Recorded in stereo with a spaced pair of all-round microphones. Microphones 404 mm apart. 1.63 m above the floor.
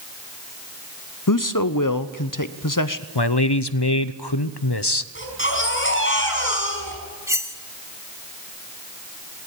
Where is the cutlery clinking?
5° right (ahead or behind), 1.7 m.